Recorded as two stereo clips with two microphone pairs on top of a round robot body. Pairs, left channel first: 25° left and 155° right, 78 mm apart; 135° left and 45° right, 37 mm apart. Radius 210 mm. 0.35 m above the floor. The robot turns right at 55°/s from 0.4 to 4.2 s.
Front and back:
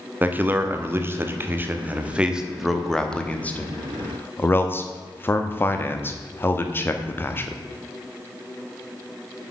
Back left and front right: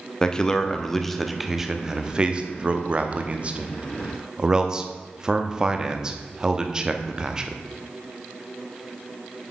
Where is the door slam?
No door slam in this recording.